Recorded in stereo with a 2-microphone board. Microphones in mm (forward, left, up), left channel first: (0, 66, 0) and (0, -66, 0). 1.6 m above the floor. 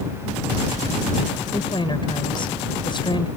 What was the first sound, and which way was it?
A woman speaking, 35° left (ahead or behind).